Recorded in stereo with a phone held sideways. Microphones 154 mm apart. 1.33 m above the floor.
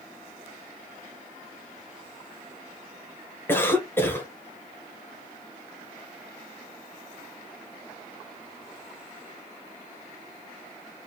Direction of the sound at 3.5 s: 15° left (ahead or behind).